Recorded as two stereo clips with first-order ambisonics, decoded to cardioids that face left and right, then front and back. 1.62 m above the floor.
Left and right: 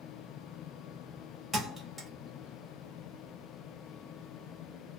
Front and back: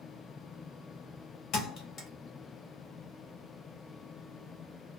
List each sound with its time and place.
1.5 s a thud: 5° right, 1.1 m